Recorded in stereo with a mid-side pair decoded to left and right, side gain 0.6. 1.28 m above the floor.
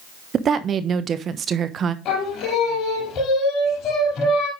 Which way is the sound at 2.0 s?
55° left.